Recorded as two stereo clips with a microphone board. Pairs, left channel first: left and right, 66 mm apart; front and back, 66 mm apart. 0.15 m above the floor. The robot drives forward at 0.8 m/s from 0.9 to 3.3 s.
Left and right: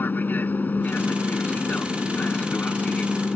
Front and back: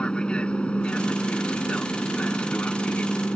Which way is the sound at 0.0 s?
65° left.